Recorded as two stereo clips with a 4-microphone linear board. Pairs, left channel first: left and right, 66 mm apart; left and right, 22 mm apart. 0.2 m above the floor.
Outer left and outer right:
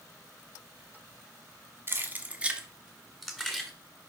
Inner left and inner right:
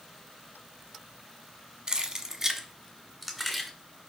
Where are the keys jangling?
35° right (ahead or behind), 1.3 m; by 3.7 s 10° left (ahead or behind), 1.9 m.